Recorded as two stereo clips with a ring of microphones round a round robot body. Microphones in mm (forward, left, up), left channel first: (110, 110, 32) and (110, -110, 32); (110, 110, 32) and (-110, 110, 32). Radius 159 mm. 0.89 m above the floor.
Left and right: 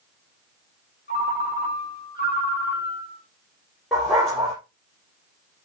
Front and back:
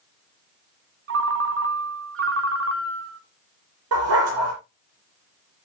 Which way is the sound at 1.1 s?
155° left.